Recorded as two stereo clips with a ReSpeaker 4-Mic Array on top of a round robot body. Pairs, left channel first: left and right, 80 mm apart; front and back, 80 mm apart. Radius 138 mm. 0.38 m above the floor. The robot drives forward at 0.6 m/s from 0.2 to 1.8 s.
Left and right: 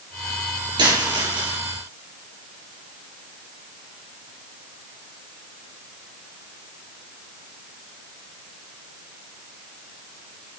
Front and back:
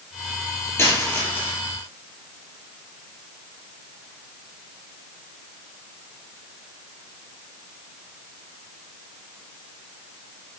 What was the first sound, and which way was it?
A dropped coin, 65° right.